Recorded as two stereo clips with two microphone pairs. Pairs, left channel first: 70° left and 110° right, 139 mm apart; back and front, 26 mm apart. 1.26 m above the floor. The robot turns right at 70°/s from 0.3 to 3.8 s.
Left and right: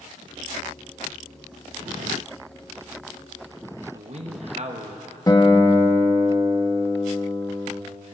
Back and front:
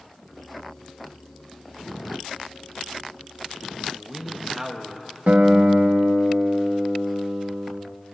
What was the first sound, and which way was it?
A man speaking, 75° right.